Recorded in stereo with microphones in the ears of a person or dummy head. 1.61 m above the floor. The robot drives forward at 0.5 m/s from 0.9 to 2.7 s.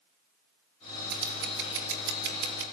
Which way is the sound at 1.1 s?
60° right (ahead or behind).